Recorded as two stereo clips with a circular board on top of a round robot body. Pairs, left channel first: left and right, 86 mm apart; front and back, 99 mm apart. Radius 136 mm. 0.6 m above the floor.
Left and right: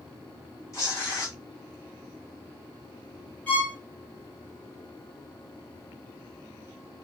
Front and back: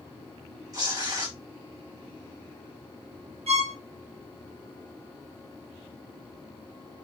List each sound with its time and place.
0.7 s tearing paper: 135° left, 2.0 m
3.5 s a violin: 165° left, 2.0 m